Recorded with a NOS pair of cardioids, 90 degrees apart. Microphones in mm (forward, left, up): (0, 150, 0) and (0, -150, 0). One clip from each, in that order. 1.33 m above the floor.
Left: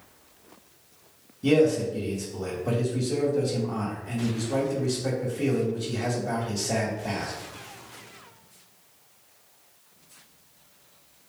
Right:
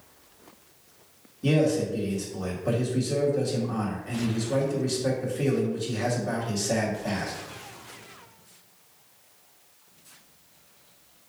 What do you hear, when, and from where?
1.4 s a man speaking: straight ahead, 2 m